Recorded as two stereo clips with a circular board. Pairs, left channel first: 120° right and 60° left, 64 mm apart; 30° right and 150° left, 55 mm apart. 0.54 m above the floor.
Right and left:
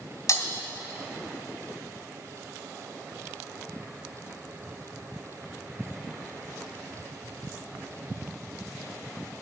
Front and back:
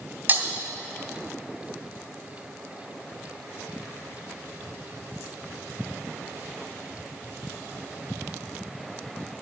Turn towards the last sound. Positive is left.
turn(degrees=-150)